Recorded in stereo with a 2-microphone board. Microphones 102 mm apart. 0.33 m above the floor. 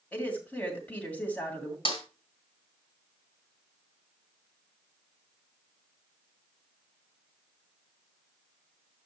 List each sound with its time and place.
0.1 s a woman speaking: 15° left (ahead or behind), 2.5 m
1.9 s a snare drum: 60° left (ahead or behind), 2.5 m